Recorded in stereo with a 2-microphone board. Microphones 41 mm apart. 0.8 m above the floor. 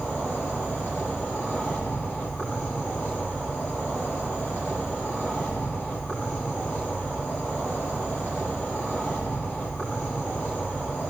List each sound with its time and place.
0.0 s an insect: 55° left (ahead or behind), 8.5 m